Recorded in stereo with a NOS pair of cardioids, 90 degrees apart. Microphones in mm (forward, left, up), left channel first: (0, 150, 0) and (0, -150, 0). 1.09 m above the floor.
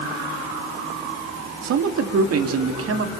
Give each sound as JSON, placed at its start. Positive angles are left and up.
{"t": 1.6, "sound": "a man speaking", "azimuth_deg": -60, "distance_m": 2.0}